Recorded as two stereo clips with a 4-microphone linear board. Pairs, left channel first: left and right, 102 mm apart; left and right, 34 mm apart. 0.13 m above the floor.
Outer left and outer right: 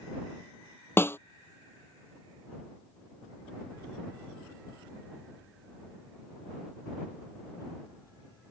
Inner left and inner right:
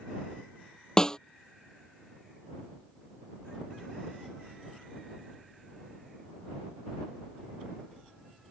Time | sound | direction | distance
1.0 | a snare drum | 20° left (ahead or behind) | ?